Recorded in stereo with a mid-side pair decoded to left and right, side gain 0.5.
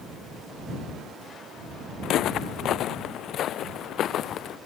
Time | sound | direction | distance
2.0 | footsteps | 70° left | ?